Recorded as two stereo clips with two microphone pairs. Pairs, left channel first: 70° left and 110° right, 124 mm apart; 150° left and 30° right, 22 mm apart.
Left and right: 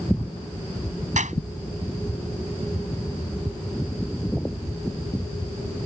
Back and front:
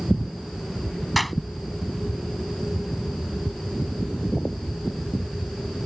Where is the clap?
125° right.